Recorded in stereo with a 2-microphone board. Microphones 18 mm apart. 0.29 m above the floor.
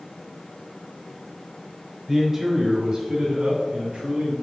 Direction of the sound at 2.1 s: 15° right (ahead or behind).